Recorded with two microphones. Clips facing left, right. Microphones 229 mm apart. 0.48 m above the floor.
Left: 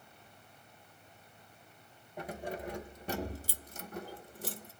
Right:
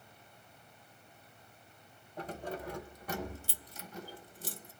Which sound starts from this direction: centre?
Keys jangling, at 2.2 s.